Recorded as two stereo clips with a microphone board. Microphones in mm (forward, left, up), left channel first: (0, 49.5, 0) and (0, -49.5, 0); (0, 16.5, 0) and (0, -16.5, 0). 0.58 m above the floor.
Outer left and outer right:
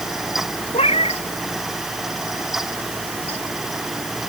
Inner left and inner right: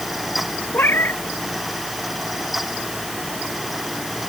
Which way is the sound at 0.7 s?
80° left.